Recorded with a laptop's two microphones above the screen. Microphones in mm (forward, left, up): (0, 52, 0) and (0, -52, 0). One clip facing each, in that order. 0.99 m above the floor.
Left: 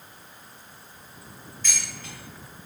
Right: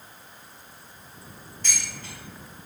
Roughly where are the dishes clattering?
Right.